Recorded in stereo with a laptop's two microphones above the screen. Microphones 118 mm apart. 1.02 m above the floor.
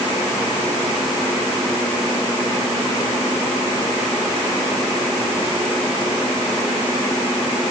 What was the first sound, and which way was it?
Only background noise.